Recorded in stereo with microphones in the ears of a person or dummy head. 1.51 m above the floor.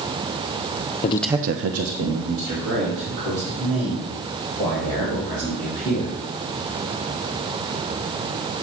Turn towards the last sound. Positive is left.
turn(degrees=-80)